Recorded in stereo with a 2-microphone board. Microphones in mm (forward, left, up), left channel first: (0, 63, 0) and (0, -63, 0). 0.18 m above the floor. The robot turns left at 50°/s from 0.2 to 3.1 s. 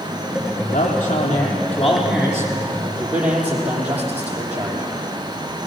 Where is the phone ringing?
No phone ringing in this recording.